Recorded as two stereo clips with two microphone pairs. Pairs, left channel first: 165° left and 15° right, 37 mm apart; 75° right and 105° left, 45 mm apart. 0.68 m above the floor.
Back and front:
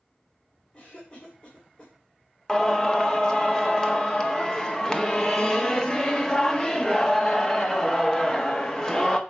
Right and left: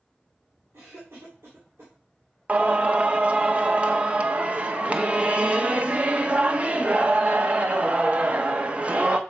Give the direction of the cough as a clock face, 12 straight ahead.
8 o'clock.